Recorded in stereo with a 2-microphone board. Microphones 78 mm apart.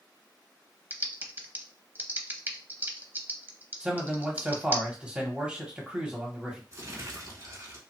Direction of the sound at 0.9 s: 25° right (ahead or behind).